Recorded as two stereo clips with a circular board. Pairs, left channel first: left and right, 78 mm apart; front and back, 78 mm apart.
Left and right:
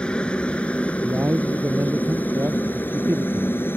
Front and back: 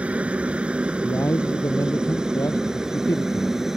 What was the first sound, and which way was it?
A helicopter, 145° left.